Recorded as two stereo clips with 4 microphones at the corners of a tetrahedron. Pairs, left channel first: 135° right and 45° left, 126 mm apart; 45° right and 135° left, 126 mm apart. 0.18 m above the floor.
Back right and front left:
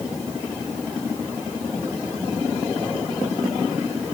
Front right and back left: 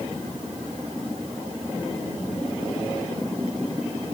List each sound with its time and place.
Only background noise.